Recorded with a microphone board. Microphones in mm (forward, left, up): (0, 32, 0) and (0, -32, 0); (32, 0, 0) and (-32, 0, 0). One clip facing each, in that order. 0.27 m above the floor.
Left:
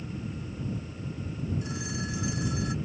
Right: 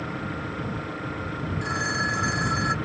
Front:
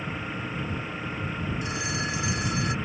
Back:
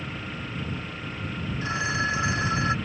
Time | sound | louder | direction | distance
0.0 | an engine running | right 7 dB, front 2 dB | 75° right | ?
1.6 | a phone ringing | right 9 dB, back 4 dB | 120° right | ?